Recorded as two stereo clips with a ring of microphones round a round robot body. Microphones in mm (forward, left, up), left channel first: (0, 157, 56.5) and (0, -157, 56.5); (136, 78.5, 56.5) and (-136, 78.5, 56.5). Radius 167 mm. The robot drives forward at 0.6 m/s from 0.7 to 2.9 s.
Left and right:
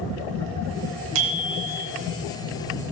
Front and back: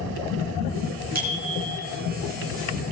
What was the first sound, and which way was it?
A bicycle bell, 120° right.